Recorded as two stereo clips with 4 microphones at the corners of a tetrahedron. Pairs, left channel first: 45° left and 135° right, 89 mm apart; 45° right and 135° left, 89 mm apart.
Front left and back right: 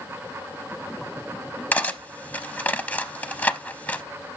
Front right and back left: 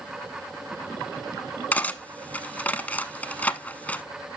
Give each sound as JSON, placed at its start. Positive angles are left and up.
{"t": 1.7, "sound": "cutlery clinking", "azimuth_deg": -5, "distance_m": 0.6}